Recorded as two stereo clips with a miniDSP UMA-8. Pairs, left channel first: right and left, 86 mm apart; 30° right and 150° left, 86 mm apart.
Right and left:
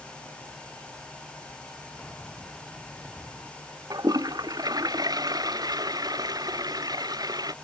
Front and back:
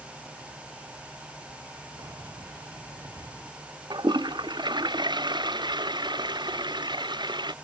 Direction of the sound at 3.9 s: 125° left.